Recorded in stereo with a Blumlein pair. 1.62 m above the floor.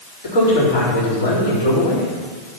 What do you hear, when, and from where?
0.2 s a man speaking: 60° left, 4 m